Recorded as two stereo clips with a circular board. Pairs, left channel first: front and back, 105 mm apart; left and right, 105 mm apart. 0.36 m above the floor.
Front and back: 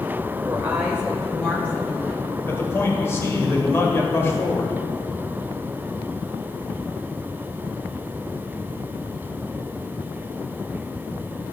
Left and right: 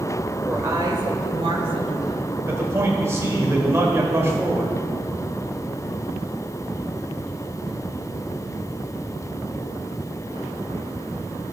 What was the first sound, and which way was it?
A woman speaking, 155° right.